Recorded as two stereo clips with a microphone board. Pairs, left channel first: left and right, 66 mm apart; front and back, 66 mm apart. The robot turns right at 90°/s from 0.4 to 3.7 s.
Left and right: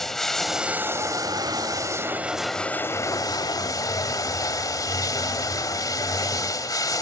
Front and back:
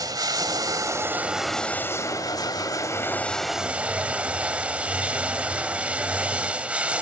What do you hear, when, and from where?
0.0 s running water: 175° left, 1.4 m; by 7.0 s 110° left, 1.4 m